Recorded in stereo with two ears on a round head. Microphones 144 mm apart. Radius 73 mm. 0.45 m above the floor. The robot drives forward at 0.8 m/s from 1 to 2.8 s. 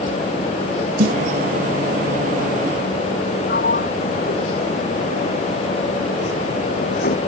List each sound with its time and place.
1.0 s a snare drum: 55° right (ahead or behind)
3.5 s a sliding door: 55° left (ahead or behind)